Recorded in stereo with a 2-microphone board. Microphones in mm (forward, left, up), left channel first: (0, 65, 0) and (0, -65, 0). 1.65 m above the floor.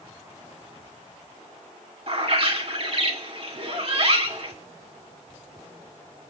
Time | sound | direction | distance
2.1 | a bird | 45° right (ahead or behind) | 2 m